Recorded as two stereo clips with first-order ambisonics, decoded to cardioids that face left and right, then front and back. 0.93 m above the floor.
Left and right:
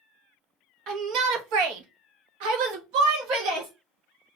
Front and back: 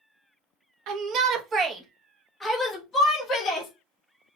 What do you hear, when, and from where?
0.9 s a shout: 140° right, 0.8 m; by 3.7 s 60° right, 1.5 m